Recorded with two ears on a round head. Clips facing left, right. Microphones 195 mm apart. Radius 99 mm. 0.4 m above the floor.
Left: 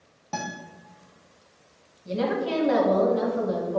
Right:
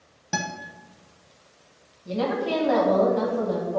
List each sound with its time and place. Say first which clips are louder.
0.3 s a guitar: right 2 dB; 15° right (ahead or behind), 1.0 m
2.0 s a woman speaking: even; 25° left (ahead or behind), 2.5 m